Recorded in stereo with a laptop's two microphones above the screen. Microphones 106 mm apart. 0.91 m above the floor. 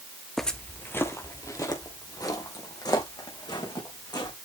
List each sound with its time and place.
0.4 s footsteps: 5° left (ahead or behind), 1.0 m; by 4.3 s 40° left (ahead or behind), 5 m